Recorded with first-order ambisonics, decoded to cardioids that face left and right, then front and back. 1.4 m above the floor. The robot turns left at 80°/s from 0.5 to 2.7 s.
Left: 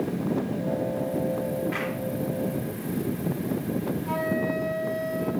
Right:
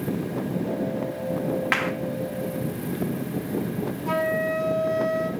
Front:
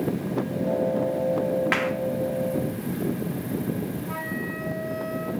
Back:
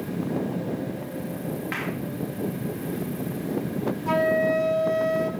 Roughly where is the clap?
Ahead right.